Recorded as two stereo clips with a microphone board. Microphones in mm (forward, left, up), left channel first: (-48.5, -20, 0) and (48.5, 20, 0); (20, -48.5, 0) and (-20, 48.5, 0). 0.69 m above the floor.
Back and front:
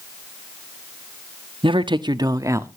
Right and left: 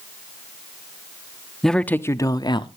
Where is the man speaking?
20° left, 0.9 m; by 2.7 s 40° right, 1.2 m.